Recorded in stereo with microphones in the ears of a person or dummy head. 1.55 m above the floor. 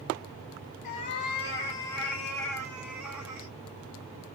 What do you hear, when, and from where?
0.8 s a cat meowing: 35° left (ahead or behind), 1.2 m; by 3.5 s 20° right (ahead or behind), 1.7 m